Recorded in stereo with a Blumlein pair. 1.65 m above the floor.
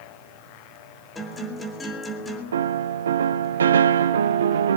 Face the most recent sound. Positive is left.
turn(degrees=-65)